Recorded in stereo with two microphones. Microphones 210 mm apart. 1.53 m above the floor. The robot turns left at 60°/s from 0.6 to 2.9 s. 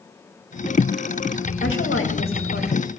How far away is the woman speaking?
About 2.5 m.